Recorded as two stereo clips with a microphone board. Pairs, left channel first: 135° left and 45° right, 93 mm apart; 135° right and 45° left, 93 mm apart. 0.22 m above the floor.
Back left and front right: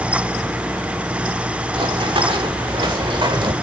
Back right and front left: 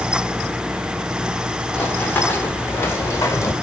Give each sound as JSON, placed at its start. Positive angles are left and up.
{"t": 1.7, "sound": "running footsteps", "azimuth_deg": -65, "distance_m": 3.5}